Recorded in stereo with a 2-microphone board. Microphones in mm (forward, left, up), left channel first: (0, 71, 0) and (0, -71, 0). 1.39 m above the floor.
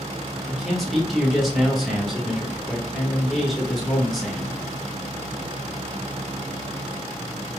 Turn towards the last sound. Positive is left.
turn(degrees=0)  # may be behind; listen again after turning